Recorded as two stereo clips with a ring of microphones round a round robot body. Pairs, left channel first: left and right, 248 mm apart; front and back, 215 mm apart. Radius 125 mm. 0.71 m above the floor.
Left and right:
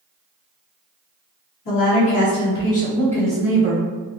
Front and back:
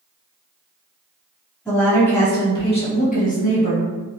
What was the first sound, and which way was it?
A woman speaking, 85° left.